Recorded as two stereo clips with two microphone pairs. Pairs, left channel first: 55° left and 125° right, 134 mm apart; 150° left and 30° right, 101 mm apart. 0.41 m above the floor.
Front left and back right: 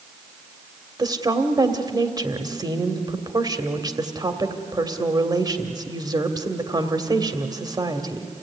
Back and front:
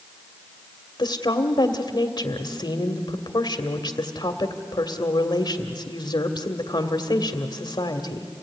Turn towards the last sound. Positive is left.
turn(degrees=180)